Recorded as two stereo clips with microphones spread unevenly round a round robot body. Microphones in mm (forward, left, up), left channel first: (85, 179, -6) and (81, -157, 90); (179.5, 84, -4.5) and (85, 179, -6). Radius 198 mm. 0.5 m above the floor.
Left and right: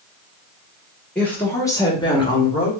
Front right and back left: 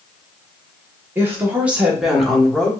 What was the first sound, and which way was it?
A woman speaking, 115° left.